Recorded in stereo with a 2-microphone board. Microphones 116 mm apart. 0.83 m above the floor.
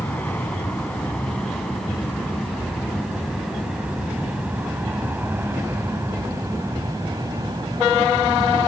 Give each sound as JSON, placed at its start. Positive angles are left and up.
{"t": 0.0, "sound": "an aircraft", "side_deg": 10}